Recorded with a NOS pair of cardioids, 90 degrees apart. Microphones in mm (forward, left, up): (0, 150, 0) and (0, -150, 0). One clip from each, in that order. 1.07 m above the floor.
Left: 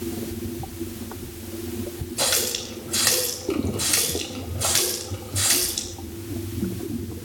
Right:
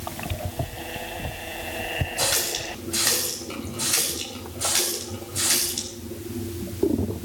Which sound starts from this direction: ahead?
A running tap, at 2.2 s.